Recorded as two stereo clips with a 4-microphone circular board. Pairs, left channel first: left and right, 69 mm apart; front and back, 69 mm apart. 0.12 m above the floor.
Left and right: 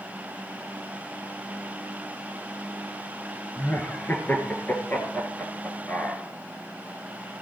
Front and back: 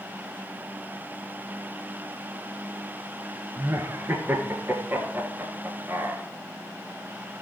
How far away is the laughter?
About 1.7 m.